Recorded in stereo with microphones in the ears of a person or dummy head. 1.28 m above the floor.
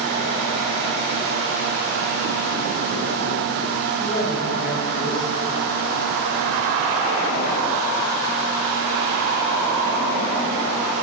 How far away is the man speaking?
About 6.5 m.